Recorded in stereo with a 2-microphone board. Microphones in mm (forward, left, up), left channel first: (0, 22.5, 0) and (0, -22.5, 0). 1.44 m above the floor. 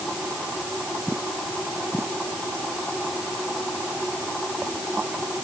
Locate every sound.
Only background noise.